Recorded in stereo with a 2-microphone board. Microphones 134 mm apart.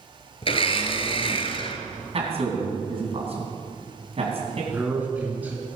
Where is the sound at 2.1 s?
50° right (ahead or behind), 3 m.